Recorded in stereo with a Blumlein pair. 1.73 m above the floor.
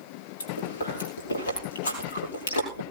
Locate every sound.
0.4 s chewing: 70° left, 5 m